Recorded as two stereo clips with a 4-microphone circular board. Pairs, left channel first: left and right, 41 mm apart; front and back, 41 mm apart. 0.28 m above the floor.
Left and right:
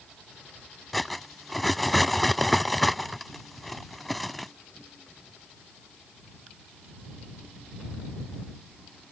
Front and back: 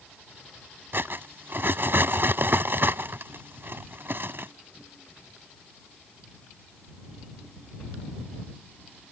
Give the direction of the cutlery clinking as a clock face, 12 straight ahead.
6 o'clock.